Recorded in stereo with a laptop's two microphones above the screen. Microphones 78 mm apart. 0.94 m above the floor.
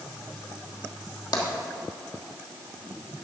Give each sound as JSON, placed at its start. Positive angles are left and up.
{"t": 1.3, "sound": "tapping", "side_deg": 60, "distance_m": 1.3}